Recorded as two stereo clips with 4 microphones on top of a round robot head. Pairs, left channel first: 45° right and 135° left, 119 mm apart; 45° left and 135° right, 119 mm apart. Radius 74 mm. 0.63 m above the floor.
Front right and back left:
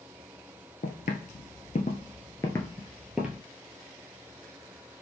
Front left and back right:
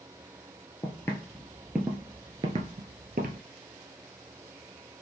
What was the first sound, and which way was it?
Footsteps, 20° right.